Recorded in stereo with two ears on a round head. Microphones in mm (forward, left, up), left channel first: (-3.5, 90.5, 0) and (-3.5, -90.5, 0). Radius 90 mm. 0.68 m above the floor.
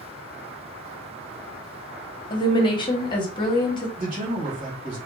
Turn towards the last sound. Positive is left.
turn(degrees=-40)  # may be behind; listen again after turning